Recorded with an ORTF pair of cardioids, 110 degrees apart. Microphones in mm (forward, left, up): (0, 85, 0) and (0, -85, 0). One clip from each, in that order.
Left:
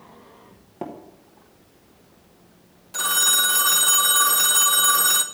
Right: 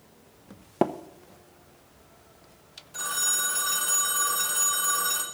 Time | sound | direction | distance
0.8 | tapping | 55° right | 0.7 m
2.9 | a phone ringing | 45° left | 1.0 m